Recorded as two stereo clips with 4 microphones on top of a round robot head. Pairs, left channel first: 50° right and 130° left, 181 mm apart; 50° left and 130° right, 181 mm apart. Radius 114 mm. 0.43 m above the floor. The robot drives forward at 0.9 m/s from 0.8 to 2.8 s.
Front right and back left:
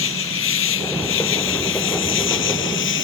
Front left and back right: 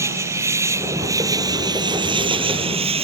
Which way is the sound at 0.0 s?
55° right.